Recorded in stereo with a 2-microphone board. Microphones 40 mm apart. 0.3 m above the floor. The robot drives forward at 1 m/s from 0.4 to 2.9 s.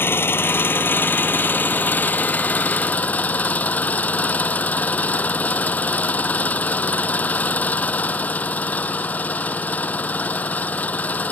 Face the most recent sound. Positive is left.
turn(degrees=45)  # may be behind; listen again after turning